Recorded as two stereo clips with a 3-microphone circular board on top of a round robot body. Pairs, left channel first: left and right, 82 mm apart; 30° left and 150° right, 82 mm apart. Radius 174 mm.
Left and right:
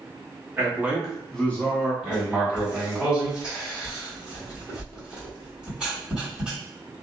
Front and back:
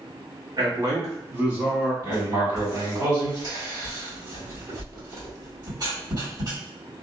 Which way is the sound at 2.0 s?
165° right.